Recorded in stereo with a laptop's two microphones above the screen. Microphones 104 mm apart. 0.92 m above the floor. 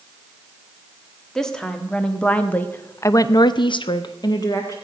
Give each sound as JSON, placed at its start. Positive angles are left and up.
{"t": 1.4, "sound": "a woman speaking", "side_deg": 5, "distance_m": 1.6}